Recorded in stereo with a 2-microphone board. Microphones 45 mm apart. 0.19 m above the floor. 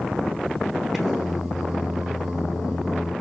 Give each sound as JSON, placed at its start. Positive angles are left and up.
{"t": 0.9, "sound": "singing", "side_deg": -5, "distance_m": 1.2}